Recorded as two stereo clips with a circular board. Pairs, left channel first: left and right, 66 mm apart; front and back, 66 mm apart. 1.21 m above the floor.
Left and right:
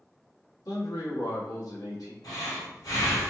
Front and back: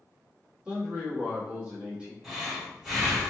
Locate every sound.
0.7 s a man speaking: 105° left, 2 m
2.2 s breathing: 95° left, 2.5 m